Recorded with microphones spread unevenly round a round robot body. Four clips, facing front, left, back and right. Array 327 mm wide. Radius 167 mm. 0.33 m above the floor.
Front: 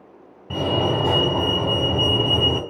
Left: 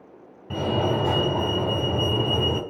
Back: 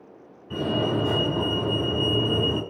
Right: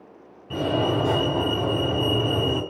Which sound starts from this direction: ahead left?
A fire alarm, at 0.5 s.